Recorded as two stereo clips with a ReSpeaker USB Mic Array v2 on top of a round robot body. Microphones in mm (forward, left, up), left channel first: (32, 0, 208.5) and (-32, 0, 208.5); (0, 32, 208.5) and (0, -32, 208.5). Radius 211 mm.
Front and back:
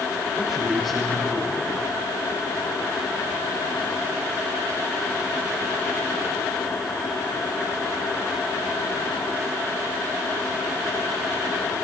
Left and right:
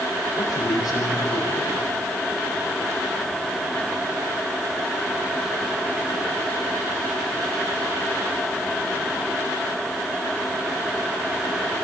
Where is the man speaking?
90° left, 9 m.